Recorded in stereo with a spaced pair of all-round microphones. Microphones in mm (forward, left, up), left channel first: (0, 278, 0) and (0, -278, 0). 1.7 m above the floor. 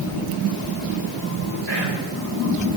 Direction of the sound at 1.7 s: 50° left (ahead or behind).